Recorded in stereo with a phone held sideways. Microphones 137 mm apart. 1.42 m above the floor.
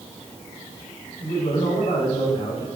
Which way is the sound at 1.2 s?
55° left (ahead or behind).